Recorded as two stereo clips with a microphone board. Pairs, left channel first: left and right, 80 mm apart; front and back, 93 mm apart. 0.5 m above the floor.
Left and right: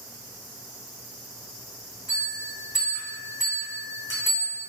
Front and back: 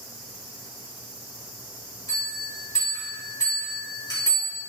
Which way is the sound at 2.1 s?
45° left.